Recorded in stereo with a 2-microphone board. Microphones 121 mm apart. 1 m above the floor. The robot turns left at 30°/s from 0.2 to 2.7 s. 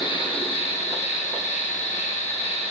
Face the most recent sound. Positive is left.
turn(degrees=60)